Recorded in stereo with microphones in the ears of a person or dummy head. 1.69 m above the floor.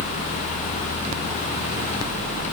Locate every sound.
Only background noise.